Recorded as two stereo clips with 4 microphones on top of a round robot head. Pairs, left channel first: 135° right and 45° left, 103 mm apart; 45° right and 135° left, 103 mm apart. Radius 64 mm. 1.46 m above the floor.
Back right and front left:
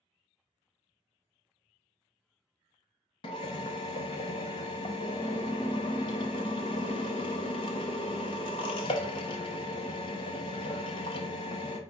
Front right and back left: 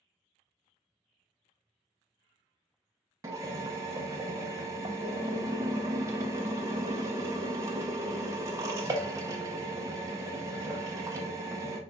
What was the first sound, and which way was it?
A drill, 170° right.